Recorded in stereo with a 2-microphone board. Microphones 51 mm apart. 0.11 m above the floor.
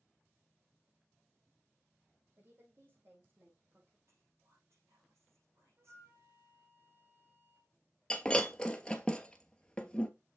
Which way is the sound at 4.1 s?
65° right (ahead or behind).